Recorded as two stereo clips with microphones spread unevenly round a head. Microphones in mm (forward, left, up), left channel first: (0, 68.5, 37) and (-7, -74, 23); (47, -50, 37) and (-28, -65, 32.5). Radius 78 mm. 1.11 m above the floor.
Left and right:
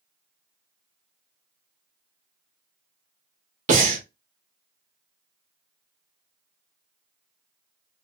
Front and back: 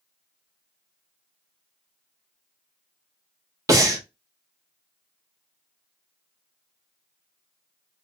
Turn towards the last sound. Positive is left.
turn(degrees=-125)